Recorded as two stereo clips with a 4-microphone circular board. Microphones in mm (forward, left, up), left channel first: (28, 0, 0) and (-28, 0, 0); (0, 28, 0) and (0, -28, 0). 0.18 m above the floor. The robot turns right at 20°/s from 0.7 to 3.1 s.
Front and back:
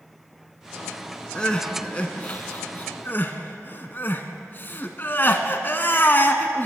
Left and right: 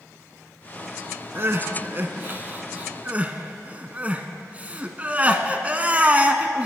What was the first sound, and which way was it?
Crying, 70° right.